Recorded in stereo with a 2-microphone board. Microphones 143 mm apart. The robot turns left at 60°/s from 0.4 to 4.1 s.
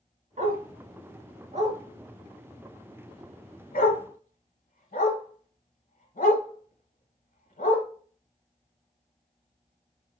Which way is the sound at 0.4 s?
60° right (ahead or behind).